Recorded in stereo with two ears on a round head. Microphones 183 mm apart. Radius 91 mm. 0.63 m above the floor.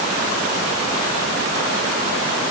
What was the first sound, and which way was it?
Only background noise.